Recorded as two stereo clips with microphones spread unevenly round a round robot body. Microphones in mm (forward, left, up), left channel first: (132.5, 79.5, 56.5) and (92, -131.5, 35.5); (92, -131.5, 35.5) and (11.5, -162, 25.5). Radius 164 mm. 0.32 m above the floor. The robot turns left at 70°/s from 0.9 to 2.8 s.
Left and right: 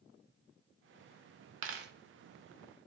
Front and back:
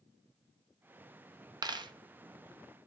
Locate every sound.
1.6 s a dropped coin: 120° right, 0.7 m; by 1.9 s 140° right, 0.7 m